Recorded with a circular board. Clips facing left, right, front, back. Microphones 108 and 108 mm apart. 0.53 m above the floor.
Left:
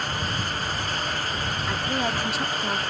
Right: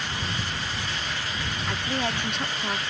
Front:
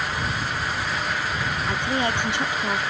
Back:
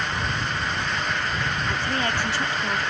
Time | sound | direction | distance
1.7 | a woman speaking | 10° left | ?